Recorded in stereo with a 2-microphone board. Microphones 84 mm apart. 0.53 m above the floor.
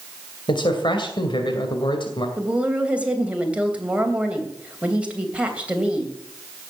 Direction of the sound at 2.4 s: 15° right (ahead or behind).